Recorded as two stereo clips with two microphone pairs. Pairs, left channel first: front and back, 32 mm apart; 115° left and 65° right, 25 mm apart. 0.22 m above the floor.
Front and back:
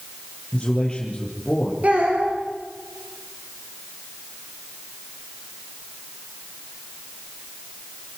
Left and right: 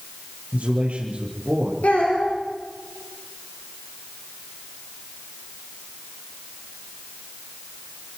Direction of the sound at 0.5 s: 70° right.